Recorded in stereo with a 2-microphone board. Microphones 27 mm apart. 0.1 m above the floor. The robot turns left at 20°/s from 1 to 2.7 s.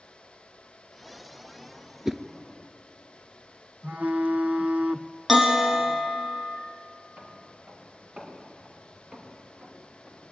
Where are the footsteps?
65° right (ahead or behind), 7.5 m; by 10.2 s 35° right (ahead or behind), 5.5 m.